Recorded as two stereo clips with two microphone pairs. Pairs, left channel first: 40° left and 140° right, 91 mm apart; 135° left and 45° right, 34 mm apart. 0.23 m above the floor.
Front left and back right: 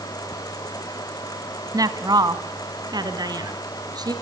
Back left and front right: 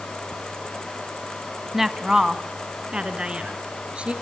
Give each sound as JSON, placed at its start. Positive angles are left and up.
{"t": 1.7, "sound": "a woman speaking", "azimuth_deg": -125, "distance_m": 1.4}